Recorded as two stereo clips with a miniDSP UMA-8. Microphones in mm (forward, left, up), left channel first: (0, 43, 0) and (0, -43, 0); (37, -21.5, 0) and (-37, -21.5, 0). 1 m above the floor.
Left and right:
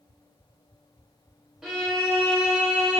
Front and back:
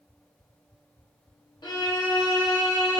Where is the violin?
5° right, 0.9 m.